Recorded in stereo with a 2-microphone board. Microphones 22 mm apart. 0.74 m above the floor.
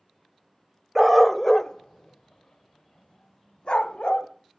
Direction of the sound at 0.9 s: Centre (ahead or behind).